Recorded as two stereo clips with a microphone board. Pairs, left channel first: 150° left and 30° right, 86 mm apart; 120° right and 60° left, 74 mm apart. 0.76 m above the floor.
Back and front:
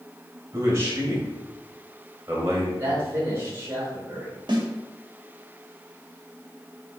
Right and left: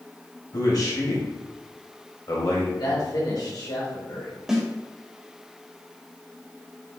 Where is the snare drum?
25° right, 2.0 m.